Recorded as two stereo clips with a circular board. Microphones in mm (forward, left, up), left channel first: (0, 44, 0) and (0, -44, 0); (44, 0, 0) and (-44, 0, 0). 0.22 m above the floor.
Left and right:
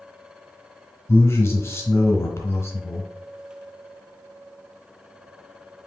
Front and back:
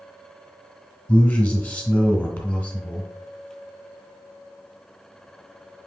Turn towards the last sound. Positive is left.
turn(degrees=65)